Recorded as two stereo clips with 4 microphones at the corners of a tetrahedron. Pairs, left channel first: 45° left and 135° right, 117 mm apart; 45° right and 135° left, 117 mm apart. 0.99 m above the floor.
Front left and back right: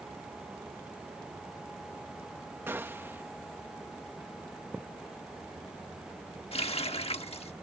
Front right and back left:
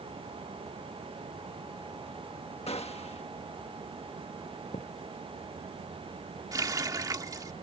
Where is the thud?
55° right.